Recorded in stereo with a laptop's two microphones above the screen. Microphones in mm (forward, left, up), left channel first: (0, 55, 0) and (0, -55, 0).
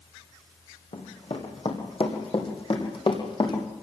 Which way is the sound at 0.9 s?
65° left (ahead or behind).